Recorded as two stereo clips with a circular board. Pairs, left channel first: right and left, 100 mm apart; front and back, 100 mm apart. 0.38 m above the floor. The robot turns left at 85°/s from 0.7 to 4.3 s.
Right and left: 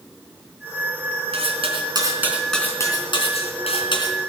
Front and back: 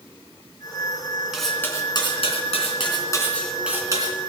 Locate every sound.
1.3 s cutlery clinking: 100° left, 3 m; by 4.2 s 145° right, 3 m